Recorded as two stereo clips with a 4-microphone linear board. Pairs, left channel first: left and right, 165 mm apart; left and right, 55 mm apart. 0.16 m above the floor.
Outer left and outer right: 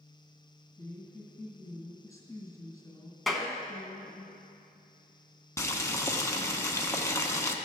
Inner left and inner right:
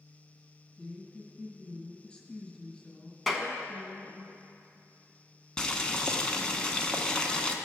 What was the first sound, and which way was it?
A woman speaking, 15° left (ahead or behind).